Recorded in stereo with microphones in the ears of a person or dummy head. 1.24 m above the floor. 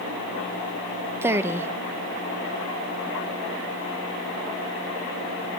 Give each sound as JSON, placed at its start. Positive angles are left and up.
{"t": 1.2, "sound": "a woman speaking", "side_deg": -15, "distance_m": 0.6}